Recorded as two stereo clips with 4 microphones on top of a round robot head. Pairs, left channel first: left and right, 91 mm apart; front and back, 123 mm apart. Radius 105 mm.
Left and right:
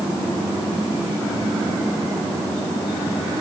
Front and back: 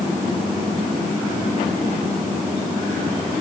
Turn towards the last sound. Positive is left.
No sound to turn to.